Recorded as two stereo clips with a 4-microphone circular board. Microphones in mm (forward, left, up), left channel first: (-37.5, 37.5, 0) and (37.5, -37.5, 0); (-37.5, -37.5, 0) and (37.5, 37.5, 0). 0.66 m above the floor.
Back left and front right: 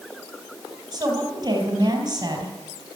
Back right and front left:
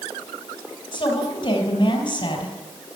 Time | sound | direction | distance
0.9 | a woman speaking | 95° right | 4 m